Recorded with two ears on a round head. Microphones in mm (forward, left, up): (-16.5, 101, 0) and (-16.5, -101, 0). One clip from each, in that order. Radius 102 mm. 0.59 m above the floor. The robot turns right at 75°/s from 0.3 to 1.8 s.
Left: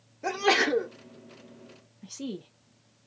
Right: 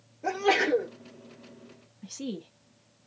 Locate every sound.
0.2 s a sneeze: 75° left, 1.2 m; by 0.9 s 120° left, 1.2 m
2.0 s a woman speaking: centre (ahead or behind), 0.6 m